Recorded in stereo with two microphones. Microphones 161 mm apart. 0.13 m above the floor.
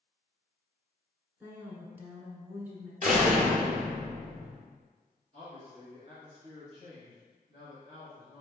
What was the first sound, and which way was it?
A woman speaking, 10° right (ahead or behind).